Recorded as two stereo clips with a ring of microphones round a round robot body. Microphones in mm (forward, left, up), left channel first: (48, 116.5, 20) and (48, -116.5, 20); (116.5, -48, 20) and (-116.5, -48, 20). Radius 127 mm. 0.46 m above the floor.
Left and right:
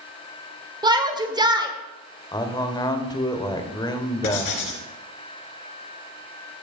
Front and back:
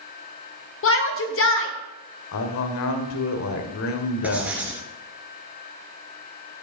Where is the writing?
95° left, 1.8 m.